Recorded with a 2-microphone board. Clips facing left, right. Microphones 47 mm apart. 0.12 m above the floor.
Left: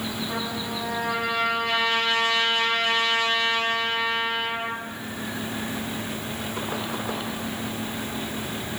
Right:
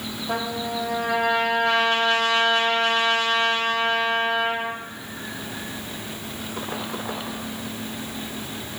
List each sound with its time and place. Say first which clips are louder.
0.3 s a trumpet: right 3 dB; 65° right (ahead or behind), 2.5 m